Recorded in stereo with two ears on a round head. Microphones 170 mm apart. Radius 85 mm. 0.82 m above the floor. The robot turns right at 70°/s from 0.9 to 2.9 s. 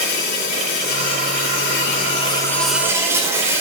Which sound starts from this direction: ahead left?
An insect, at 0.0 s.